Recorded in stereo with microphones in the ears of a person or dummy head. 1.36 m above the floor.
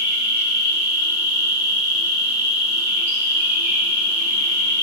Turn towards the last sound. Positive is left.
turn(degrees=-15)  # may be behind; listen again after turning